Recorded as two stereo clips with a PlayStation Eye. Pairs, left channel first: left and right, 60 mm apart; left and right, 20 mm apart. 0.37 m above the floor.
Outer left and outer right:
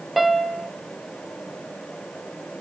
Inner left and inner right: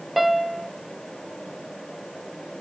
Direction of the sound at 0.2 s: 5° right (ahead or behind).